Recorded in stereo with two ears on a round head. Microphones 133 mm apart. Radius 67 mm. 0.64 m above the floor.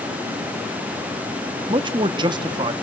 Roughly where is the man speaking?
Right.